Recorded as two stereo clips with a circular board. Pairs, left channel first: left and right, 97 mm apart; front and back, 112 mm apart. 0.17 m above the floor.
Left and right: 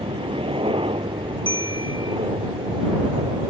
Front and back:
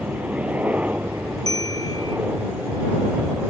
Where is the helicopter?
100° right; by 3.5 s 105° right.